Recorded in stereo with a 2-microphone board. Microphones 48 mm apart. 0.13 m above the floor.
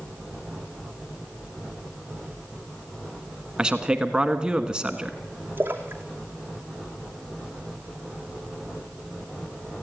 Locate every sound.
3.6 s a man speaking: 15° right (ahead or behind), 1.2 m
5.6 s a splash: 45° right (ahead or behind), 2.5 m